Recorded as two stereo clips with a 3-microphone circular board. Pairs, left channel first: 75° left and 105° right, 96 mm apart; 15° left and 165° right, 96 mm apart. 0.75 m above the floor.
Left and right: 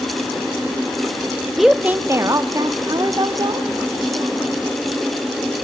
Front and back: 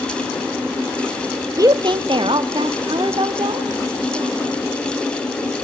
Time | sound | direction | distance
1.6 | a woman speaking | 160° left | 0.6 m